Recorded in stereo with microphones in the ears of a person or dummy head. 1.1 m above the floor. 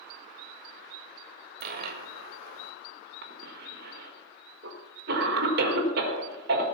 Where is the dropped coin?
60° right (ahead or behind), 1.5 m.